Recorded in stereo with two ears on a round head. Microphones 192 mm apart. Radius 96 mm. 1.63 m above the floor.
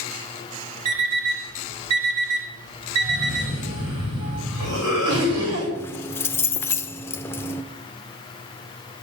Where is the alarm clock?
75° right (ahead or behind), 4 m.